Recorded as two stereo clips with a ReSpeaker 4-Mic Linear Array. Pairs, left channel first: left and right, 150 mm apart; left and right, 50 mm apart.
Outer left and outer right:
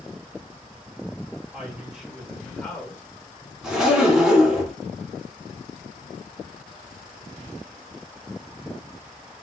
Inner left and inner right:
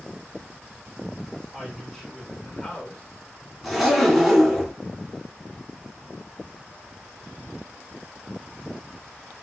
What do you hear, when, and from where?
1.5 s a woman speaking: 10° right (ahead or behind), 2.5 m; by 3.0 s 20° left (ahead or behind), 1.6 m
3.6 s a zipper: 5° right (ahead or behind), 2 m